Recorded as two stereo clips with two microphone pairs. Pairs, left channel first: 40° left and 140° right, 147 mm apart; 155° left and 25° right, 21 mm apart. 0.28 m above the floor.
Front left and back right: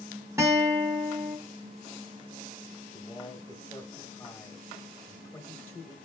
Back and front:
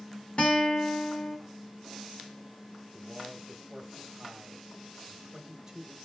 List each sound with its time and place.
0.4 s a guitar: 155° left, 1.3 m
2.9 s a man speaking: straight ahead, 1.0 m